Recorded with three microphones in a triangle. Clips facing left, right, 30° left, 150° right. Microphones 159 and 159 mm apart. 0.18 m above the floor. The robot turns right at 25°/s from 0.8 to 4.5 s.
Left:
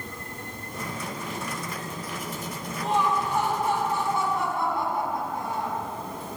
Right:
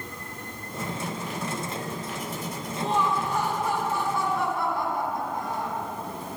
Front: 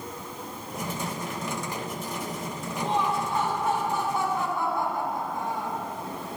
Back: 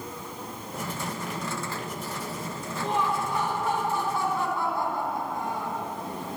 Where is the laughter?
30° left, 1.8 m; by 5.8 s 75° left, 1.8 m.